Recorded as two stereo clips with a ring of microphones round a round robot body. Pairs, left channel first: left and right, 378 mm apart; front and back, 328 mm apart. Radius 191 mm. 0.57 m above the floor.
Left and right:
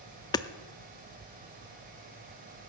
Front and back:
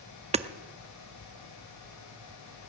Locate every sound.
0.3 s hammering: 150° left, 0.6 m